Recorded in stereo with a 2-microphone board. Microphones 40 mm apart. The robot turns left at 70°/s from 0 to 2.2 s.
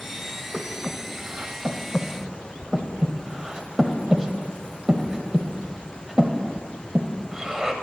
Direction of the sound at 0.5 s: 15° right (ahead or behind).